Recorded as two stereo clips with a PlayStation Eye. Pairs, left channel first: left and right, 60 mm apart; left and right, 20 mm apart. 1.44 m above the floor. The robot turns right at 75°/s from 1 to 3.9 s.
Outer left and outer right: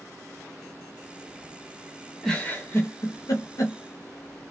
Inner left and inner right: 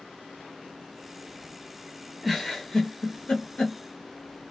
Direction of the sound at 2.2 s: 5° left (ahead or behind).